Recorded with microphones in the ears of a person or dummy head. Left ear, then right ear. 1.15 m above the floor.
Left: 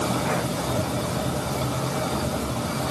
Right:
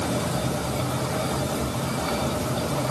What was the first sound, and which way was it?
Only background noise.